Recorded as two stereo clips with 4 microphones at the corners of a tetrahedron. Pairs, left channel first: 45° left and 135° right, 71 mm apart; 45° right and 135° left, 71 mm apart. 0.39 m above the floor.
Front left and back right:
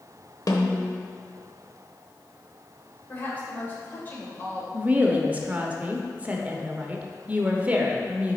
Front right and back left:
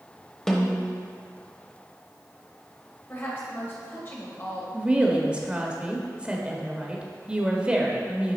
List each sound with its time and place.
0.5 s a snare drum: 35° left, 0.9 m
3.1 s a woman speaking: 5° right, 1.8 m
4.7 s a woman speaking: 170° right, 0.9 m